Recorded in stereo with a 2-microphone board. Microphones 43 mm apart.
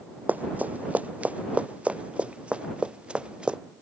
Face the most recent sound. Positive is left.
turn(degrees=-25)  # may be behind; listen again after turning